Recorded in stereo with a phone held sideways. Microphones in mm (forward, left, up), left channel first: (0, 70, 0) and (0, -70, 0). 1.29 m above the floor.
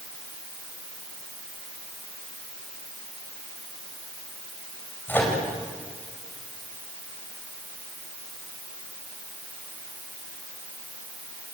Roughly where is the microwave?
Centre.